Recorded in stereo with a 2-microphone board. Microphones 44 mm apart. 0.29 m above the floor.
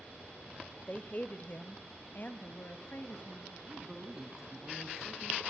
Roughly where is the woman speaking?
Left.